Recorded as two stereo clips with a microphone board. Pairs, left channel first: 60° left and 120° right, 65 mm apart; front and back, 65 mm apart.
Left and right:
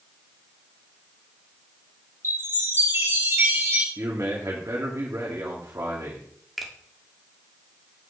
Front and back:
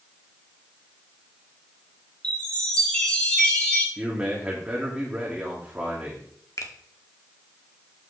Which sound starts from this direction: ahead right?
A finger snap, at 6.6 s.